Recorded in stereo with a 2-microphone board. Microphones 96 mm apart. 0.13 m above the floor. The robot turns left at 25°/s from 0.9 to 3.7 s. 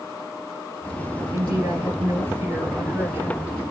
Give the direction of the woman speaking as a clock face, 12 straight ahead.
4 o'clock.